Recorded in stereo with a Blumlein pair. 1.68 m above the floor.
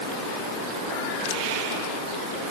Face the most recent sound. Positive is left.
No sound to turn to.